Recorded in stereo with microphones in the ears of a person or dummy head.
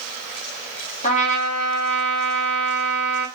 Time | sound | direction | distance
1.0 | a trumpet | 35° left (ahead or behind) | 1.0 m